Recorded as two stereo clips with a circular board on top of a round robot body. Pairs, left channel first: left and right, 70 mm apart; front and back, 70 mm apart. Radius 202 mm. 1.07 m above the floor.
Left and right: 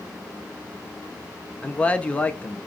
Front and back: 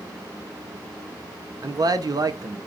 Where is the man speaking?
160° left, 0.9 m.